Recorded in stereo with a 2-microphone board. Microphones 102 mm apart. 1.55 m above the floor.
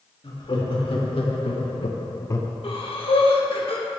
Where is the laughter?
60° left (ahead or behind), 2.5 m; by 2.5 s 15° left (ahead or behind), 0.9 m.